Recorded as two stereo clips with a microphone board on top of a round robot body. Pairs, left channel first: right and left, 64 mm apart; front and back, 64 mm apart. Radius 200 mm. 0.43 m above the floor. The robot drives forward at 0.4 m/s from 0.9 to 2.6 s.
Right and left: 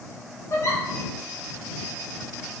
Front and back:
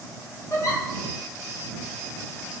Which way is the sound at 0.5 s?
40° right.